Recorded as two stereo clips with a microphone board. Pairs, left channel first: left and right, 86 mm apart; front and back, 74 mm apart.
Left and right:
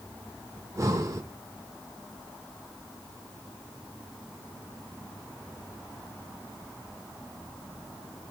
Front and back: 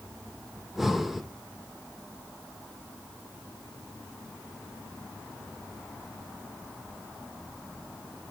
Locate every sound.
0.6 s breathing: 95° right, 0.8 m